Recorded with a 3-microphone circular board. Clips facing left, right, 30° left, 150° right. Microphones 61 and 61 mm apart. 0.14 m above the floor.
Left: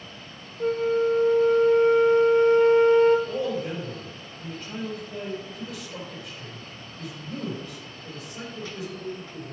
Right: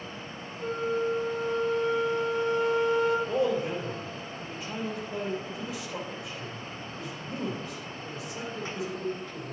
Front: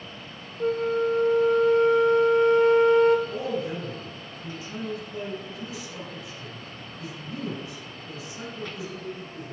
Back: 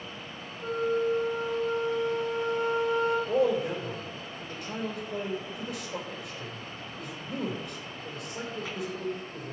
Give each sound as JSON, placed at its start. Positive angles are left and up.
{"t": 0.6, "sound": "a flute", "azimuth_deg": 50, "distance_m": 0.7}
{"t": 3.3, "sound": "a man speaking", "azimuth_deg": -170, "distance_m": 3.5}